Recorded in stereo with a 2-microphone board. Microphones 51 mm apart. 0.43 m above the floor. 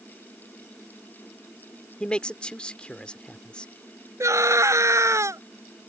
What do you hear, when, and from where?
2.0 s a man speaking: 20° left (ahead or behind)
4.2 s a scream: 70° right (ahead or behind)